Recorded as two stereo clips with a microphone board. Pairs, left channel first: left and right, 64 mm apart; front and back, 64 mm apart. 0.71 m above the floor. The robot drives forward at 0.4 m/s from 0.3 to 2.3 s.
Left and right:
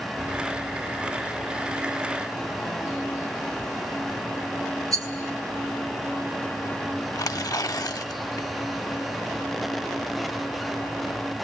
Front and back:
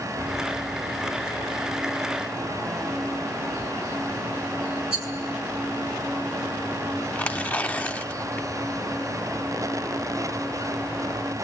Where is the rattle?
110° right, 7.5 m.